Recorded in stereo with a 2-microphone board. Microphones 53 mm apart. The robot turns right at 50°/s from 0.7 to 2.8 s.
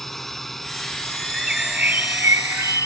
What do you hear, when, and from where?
0.0 s a drone: 5° left (ahead or behind); by 2.9 s 60° left (ahead or behind)
1.3 s a bird: 175° right; by 2.9 s 100° right